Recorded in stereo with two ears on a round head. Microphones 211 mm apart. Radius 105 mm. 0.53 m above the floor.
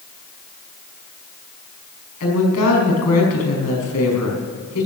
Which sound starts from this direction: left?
A woman speaking, at 2.2 s.